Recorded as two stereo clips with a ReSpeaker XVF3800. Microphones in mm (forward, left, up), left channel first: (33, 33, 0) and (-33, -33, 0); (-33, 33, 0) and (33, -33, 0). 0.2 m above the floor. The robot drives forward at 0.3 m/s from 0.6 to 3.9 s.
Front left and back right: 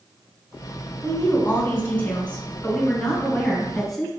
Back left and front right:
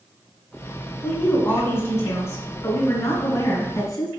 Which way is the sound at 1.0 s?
90° left.